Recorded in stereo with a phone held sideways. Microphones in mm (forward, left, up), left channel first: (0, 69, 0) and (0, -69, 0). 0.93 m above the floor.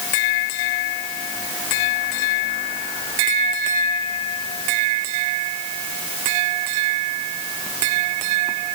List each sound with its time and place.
Only background noise.